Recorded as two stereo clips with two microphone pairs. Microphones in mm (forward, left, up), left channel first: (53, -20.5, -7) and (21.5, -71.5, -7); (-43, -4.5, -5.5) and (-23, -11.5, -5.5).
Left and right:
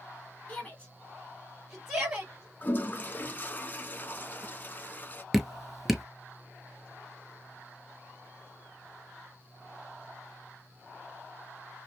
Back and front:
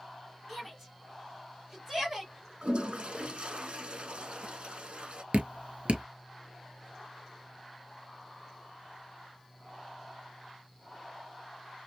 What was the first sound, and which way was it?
A shout, 65° left.